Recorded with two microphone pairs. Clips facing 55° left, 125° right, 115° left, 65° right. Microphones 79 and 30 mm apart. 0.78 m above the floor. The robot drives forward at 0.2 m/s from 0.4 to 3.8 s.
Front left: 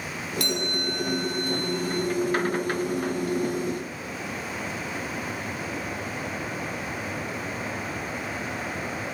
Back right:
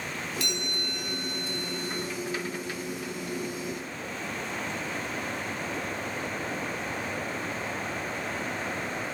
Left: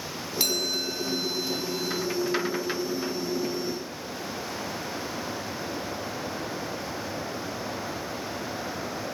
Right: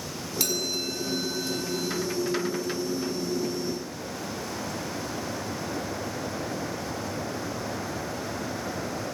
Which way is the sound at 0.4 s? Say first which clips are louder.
Front left 5 dB, left 2 dB; 50° left.